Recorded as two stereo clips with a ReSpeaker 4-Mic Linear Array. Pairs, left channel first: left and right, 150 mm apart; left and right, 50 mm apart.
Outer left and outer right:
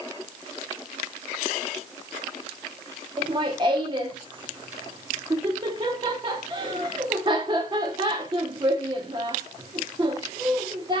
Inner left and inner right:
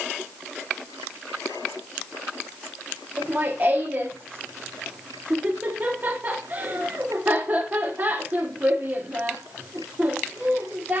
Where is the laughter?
30° right (ahead or behind), 1.1 m.